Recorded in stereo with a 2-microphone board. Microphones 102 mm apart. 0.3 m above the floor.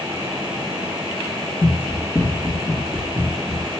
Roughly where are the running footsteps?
Left.